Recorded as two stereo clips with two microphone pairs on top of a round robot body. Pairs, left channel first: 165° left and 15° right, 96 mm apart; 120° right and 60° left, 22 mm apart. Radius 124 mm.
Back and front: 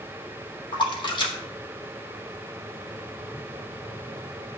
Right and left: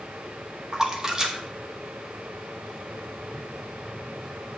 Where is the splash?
125° left, 1.7 m.